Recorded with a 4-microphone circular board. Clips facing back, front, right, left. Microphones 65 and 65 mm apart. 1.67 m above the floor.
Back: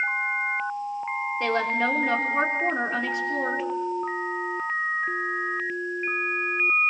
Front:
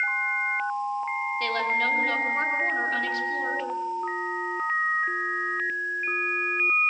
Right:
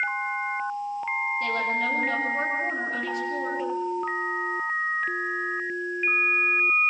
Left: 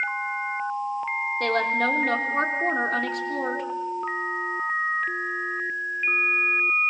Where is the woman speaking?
110° left, 4 m.